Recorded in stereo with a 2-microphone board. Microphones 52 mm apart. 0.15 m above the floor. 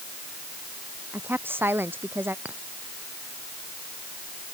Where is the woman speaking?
40° right (ahead or behind).